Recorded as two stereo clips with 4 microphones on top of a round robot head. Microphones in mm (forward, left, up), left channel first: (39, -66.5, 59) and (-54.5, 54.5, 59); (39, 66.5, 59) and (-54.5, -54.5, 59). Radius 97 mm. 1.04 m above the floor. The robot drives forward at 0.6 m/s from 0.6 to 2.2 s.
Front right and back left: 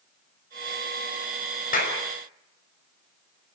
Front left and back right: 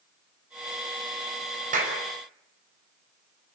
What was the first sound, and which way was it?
A clap, 85° right.